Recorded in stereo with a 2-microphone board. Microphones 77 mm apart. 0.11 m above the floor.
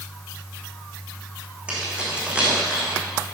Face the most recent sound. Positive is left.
turn(degrees=-15)  # may be behind; listen again after turning